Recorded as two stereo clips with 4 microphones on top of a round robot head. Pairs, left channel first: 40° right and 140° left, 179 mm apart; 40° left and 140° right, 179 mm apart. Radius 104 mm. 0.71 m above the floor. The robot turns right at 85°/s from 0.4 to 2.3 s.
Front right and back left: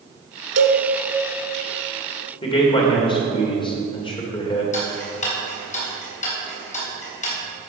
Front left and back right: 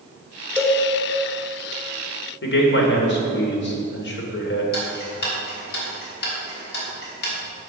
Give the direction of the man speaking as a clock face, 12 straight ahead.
11 o'clock.